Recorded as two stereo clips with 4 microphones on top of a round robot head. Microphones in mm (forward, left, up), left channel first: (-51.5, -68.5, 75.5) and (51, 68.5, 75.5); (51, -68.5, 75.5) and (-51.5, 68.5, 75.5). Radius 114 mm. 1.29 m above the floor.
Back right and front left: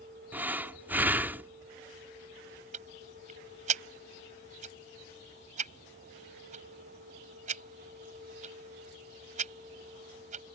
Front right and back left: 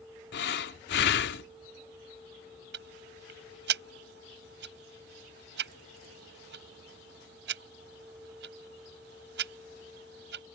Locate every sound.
0.3 s breathing: 30° right
2.7 s ticking: 100° left